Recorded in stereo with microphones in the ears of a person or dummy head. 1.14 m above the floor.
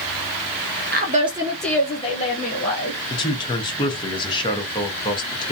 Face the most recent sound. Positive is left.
turn(degrees=25)  # may be behind; listen again after turning